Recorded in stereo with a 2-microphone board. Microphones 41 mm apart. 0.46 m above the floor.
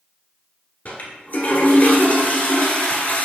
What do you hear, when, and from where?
0.8 s a toilet flushing: 45° left (ahead or behind), 1.2 m